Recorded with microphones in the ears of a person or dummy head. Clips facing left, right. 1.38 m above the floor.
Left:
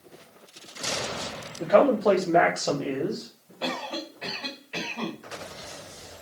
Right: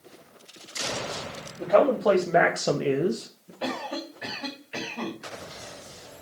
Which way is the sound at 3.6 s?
20° right (ahead or behind).